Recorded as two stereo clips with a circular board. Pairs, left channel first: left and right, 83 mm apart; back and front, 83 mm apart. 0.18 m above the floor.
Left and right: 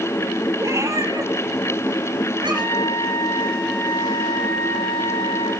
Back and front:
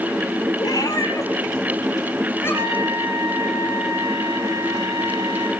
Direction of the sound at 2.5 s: 35° left.